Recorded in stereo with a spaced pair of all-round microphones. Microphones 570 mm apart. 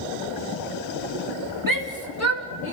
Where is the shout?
35° right (ahead or behind), 2.5 m; by 2.7 s 20° right (ahead or behind), 3 m.